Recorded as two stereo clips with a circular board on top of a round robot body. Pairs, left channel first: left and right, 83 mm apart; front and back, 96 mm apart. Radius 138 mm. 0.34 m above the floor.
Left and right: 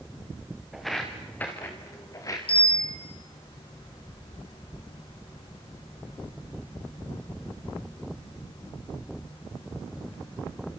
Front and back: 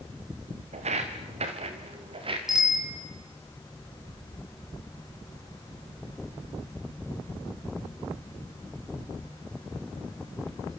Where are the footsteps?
Straight behind, 3 m; by 2.4 s 145° left, 4 m.